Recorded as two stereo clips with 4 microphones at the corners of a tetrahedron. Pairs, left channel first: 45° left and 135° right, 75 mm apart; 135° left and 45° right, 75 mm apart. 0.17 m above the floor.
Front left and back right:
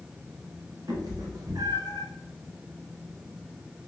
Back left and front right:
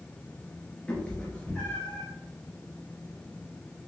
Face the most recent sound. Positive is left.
turn(degrees=-150)